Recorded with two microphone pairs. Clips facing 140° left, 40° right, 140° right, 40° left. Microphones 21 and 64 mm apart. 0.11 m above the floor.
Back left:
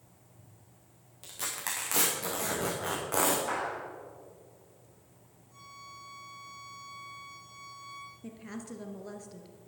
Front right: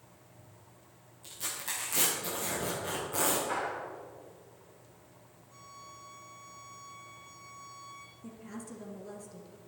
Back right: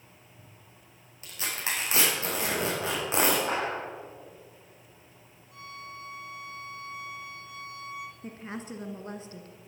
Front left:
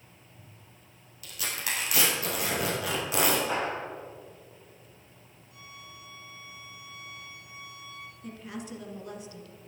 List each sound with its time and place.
1.2 s tearing paper: 160° left, 4 m
3.5 s a clap: 175° right, 4 m
5.5 s a violin: 110° right, 5.5 m
8.2 s a woman speaking: 170° right, 1.5 m